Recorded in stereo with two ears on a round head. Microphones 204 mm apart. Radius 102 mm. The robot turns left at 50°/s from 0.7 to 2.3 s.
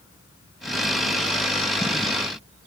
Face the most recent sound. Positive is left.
No sound to turn to.